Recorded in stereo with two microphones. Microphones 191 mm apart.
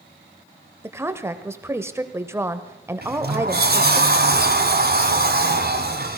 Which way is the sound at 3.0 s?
55° right (ahead or behind).